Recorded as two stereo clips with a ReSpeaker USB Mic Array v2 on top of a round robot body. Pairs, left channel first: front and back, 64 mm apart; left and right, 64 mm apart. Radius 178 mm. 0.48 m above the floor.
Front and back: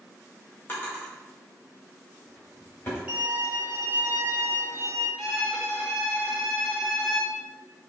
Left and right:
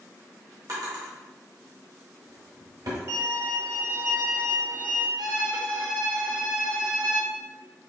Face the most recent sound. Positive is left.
turn(degrees=-90)